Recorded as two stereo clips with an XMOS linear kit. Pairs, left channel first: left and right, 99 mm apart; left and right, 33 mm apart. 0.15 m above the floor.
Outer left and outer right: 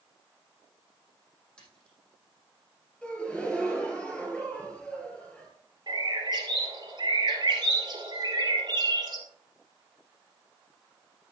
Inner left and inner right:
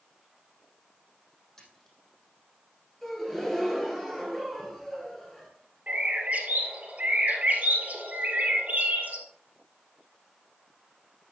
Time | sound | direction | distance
1.6 | a splash | 10° left (ahead or behind) | 5 m
3.0 | a gasp | 10° left (ahead or behind) | 2 m
5.9 | a bird | 45° right (ahead or behind) | 2.5 m